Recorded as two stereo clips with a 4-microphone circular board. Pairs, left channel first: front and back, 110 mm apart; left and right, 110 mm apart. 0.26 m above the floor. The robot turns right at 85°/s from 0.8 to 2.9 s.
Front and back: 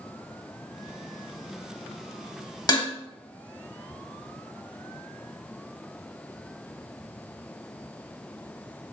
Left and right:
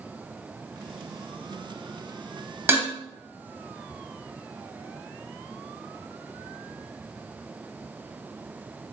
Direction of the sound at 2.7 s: 30° right.